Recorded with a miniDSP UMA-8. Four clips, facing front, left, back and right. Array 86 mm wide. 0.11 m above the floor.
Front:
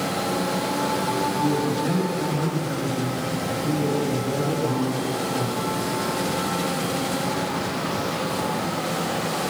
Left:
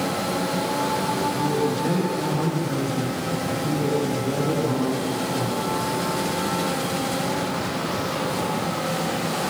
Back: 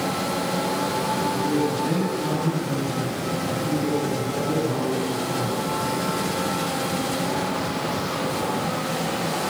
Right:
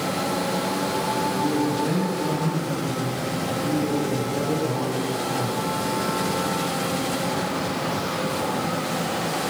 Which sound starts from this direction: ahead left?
A man speaking, at 1.4 s.